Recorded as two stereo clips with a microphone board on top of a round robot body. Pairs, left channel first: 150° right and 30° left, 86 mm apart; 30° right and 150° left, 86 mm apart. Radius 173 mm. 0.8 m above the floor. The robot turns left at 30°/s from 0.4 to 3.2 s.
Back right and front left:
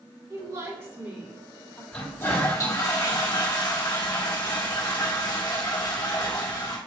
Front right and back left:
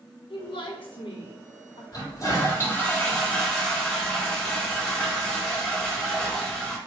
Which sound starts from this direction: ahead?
A woman speaking, at 0.3 s.